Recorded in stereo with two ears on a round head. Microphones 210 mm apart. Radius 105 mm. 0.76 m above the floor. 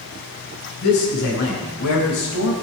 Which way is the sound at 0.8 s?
50° left (ahead or behind).